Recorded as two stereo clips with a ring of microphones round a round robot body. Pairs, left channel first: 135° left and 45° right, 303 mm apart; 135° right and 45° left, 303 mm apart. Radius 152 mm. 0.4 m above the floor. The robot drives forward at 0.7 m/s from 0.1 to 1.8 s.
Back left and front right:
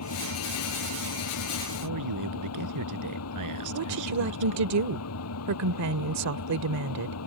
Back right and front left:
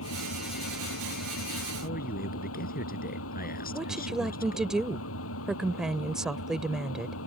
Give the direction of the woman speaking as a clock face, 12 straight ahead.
1 o'clock.